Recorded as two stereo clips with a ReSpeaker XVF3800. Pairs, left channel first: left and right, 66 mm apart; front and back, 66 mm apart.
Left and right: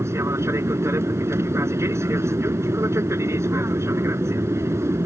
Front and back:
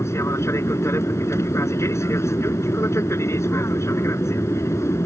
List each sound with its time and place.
0.0 s an aircraft: 45° right